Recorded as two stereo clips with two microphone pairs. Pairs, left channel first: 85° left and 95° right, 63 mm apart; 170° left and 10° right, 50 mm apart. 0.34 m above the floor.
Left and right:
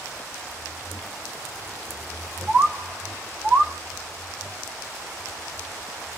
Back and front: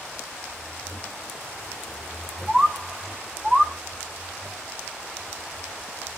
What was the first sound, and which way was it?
A bird, 70° right.